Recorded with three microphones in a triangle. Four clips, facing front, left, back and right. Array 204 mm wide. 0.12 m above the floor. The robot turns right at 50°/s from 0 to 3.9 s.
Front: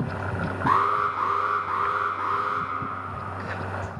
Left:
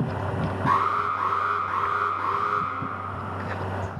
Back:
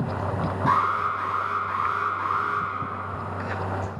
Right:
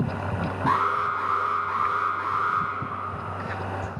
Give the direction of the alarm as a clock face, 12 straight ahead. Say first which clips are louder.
Even, front 1 dB; 1 o'clock.